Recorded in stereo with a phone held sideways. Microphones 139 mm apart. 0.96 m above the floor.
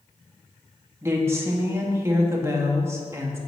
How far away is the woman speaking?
About 1.4 m.